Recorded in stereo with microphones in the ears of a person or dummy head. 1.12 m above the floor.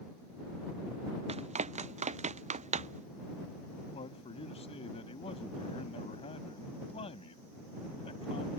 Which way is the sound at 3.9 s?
30° left (ahead or behind).